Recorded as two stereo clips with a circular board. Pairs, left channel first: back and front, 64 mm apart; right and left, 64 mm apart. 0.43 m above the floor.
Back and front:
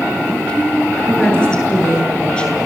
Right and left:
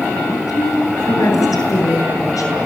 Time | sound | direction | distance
0.3 | a woman speaking | 105° right | 7 m